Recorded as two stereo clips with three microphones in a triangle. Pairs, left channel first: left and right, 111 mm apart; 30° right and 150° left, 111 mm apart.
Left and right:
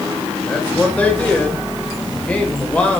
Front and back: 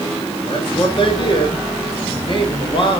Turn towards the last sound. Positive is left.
turn(degrees=10)